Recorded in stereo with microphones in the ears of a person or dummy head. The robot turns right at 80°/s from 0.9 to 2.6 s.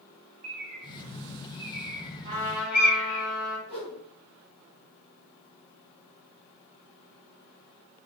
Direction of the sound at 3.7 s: 10° left (ahead or behind).